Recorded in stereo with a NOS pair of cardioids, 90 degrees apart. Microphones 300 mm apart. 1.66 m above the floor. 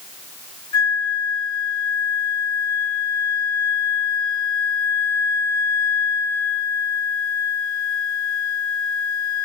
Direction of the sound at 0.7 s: 65° left.